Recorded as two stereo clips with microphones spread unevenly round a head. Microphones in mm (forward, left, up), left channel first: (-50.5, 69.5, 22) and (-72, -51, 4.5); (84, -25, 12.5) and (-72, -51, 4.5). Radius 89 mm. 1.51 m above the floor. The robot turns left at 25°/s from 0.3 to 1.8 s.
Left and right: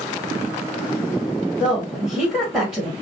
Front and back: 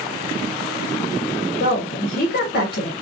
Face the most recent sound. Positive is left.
turn(degrees=-15)